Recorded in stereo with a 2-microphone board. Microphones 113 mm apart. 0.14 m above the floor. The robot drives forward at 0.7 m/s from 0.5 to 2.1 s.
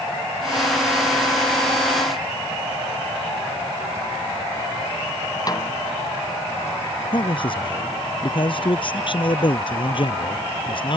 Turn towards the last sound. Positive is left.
turn(degrees=50)  # may be behind; listen again after turning